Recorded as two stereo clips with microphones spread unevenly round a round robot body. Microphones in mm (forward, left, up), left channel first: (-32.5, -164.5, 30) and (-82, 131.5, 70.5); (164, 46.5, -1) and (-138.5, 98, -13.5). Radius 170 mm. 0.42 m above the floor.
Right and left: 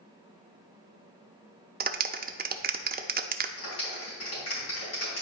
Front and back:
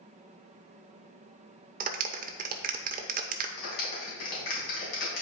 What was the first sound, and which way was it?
A clap, 145° left.